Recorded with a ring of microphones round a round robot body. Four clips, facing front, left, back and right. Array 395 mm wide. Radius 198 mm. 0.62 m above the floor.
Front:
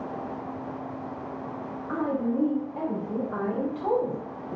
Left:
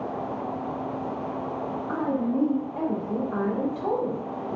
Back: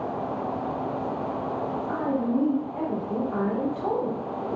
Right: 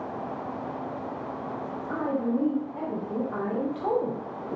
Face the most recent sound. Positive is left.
turn(degrees=-85)